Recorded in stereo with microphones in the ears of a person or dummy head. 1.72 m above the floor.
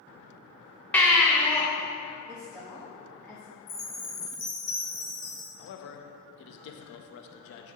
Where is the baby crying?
15° left (ahead or behind), 1.0 m.